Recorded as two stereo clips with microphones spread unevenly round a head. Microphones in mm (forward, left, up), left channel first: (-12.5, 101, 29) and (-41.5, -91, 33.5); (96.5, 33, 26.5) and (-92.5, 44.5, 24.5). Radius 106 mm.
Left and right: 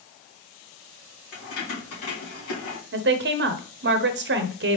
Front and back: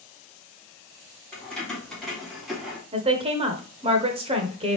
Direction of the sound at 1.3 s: 80° left.